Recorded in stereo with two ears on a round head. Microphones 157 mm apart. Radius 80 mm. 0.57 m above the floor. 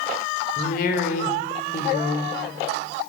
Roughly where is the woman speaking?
Left.